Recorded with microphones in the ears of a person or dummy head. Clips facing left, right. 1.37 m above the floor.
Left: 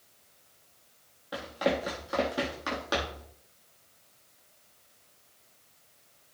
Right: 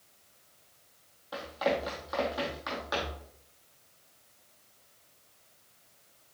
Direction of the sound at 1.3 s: 30° left (ahead or behind).